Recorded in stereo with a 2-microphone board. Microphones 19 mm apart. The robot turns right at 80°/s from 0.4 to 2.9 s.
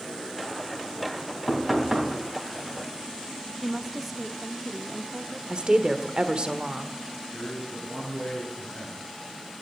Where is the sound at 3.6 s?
10° right (ahead or behind), 0.7 m.